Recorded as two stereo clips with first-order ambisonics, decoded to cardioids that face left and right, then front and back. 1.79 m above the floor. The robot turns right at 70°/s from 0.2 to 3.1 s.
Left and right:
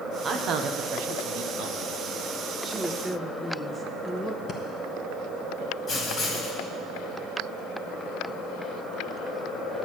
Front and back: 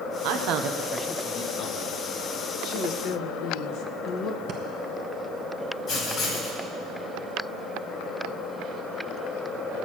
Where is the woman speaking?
25° right, 1.0 m; by 4.4 s 10° left, 1.0 m.